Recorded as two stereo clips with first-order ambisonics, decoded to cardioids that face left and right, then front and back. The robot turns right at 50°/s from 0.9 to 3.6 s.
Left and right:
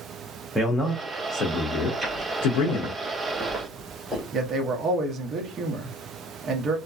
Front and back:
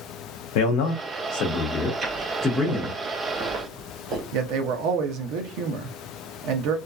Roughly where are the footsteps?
Behind.